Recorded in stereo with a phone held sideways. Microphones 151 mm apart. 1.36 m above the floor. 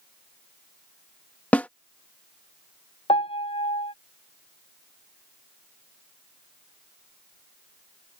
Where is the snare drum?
10° left (ahead or behind).